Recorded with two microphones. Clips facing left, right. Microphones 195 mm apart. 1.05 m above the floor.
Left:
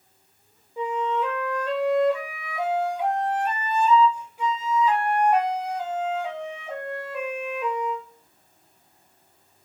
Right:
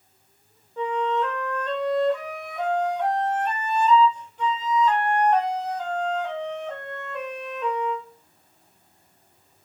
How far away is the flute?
About 1.3 m.